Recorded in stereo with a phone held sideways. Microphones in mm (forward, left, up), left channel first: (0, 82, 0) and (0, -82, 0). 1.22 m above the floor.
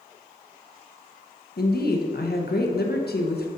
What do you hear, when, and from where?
1.6 s a woman speaking: 75° left (ahead or behind), 1.0 m